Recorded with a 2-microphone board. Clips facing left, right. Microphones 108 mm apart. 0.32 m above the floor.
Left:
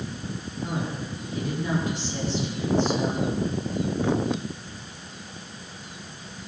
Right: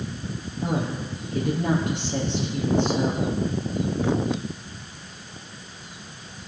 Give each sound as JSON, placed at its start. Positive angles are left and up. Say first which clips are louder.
{"t": 0.6, "sound": "a woman speaking", "louder": "right 4 dB", "side_deg": -60, "distance_m": 7.0}